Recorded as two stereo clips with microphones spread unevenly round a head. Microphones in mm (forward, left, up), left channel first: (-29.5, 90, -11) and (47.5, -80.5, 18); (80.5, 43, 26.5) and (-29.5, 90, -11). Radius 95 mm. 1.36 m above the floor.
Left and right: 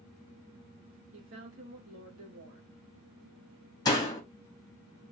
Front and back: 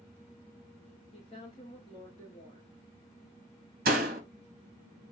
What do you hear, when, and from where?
1.1 s a woman speaking: 90° right, 2.5 m
3.9 s a door slam: 170° right, 1.5 m